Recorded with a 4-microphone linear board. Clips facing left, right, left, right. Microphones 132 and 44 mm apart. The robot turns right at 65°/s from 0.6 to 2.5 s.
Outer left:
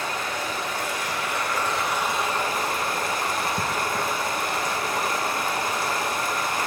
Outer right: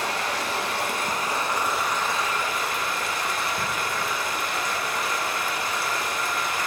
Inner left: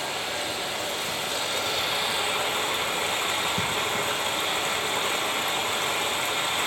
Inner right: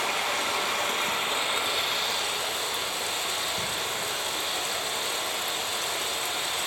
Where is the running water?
80° right, 1.7 m; by 6.7 s 45° left, 1.7 m.